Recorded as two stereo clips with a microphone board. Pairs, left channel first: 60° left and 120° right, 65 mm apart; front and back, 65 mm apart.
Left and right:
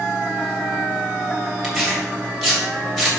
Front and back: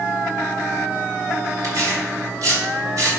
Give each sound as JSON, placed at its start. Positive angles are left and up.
{"t": 1.6, "sound": "tearing paper", "azimuth_deg": 145, "distance_m": 3.0}